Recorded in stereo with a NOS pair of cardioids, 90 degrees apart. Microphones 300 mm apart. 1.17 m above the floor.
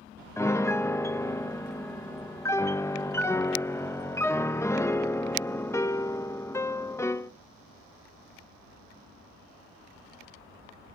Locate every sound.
0.4 s a piano: 10° left, 0.5 m